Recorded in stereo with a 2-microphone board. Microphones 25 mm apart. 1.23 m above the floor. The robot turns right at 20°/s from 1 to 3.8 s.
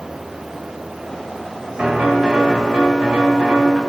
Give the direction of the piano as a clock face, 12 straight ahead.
4 o'clock.